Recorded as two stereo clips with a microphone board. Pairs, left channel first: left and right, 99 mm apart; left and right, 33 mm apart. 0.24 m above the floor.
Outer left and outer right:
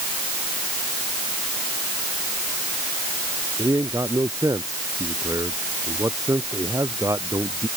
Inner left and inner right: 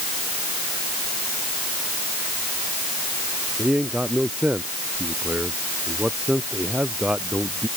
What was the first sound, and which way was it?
A man speaking, 35° right (ahead or behind).